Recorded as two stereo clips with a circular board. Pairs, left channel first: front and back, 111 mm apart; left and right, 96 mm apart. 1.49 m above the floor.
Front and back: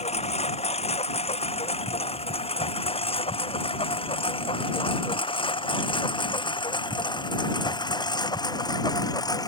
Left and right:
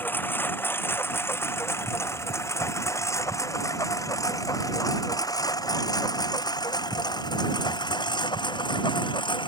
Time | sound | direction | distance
0.0 | a lawn mower | 20° left | ?